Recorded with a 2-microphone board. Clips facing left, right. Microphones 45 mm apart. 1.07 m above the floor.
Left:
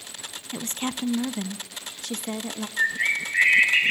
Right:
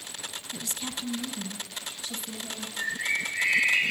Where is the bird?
40° left (ahead or behind), 3 m.